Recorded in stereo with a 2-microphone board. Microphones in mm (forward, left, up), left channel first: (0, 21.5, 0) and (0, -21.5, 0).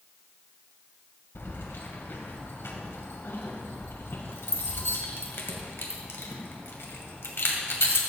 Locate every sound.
1.4 s keys jangling: 75° left (ahead or behind), 2 m